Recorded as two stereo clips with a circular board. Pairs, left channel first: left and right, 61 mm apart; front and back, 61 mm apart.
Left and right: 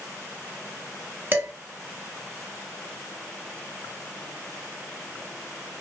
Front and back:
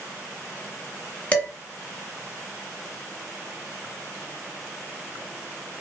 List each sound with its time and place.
1.3 s dishes clattering: 55° right, 0.9 m